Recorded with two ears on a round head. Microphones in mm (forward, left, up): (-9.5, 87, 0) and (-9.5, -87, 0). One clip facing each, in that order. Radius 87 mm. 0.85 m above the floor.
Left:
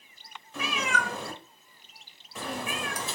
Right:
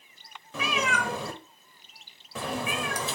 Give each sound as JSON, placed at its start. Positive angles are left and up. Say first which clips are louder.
{"t": 0.5, "sound": "a cat meowing", "louder": "right 2 dB", "side_deg": -55, "distance_m": 1.2}